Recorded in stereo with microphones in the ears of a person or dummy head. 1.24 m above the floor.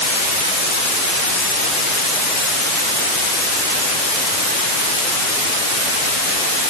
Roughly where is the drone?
No drone in this recording.